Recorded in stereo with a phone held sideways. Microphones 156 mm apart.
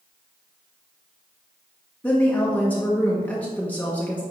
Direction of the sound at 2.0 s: 10° left (ahead or behind).